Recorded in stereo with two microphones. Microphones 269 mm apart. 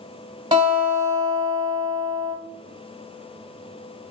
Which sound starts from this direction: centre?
A guitar, at 0.5 s.